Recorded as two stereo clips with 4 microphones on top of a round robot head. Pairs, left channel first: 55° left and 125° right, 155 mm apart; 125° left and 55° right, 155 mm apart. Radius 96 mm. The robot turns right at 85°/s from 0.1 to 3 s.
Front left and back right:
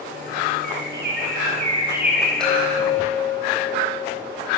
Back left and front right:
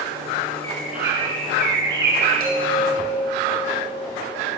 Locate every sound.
0.6 s a bird: 165° right, 6 m; by 2.3 s 25° right, 6 m
2.4 s a chime: 30° right, 5.5 m; by 4.3 s 20° left, 5.5 m